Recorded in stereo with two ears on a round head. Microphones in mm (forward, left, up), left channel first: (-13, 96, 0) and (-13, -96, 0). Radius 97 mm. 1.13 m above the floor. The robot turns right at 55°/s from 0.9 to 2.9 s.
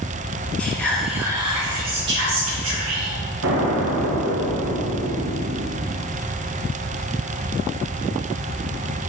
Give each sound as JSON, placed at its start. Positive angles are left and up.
{"t": 0.6, "sound": "whispering", "azimuth_deg": 175, "distance_m": 2.0}
{"t": 3.4, "sound": "an explosion", "side_deg": -60, "distance_m": 1.2}